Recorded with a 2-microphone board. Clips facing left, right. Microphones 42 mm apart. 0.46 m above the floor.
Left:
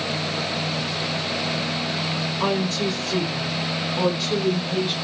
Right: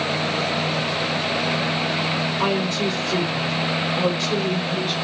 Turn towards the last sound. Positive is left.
turn(degrees=15)  # may be behind; listen again after turning